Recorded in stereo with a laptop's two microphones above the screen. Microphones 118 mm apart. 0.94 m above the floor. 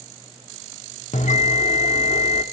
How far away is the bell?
About 1.2 m.